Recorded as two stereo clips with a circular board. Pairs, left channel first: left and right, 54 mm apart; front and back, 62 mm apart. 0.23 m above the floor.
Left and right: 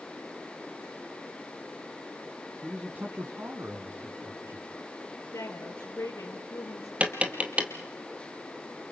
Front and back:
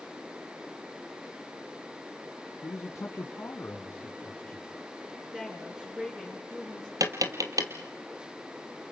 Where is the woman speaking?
105° left, 4.5 m.